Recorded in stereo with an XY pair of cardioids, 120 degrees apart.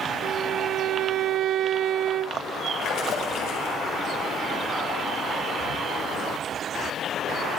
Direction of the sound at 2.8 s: 65° left.